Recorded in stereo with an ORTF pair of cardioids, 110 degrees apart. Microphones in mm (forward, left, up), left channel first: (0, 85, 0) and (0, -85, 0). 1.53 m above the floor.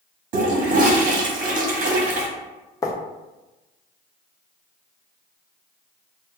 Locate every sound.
0.3 s a toilet flushing: 50° right, 1.0 m
2.8 s writing: 20° left, 0.5 m